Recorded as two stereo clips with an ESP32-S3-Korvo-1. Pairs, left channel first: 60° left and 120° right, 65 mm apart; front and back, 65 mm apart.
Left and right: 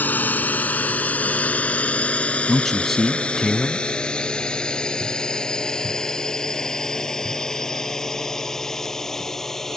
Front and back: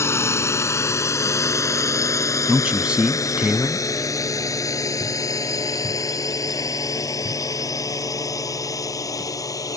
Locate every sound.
0.0 s a drone: 10° left; by 9.8 s 25° right
2.5 s a man speaking: 135° left